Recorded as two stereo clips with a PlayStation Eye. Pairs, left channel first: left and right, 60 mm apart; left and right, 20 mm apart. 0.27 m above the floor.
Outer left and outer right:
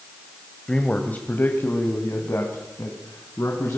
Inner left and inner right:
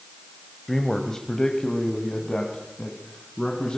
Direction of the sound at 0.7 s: 15° left (ahead or behind).